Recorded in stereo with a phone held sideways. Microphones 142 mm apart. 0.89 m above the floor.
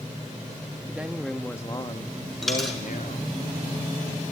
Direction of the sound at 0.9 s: 15° right (ahead or behind).